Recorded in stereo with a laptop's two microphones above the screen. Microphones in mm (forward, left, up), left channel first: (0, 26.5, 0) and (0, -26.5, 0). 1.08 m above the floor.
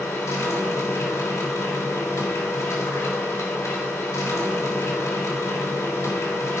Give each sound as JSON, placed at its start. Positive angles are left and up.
{"t": 0.0, "sound": "a machine running", "side_deg": 85, "distance_m": 2.5}